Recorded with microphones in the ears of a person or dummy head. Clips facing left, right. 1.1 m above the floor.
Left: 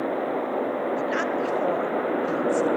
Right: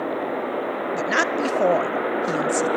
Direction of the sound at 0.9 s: 65° right (ahead or behind).